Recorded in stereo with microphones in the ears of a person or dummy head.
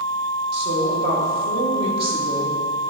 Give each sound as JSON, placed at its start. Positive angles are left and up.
{"t": 0.5, "sound": "a woman speaking", "side_deg": -30, "distance_m": 1.6}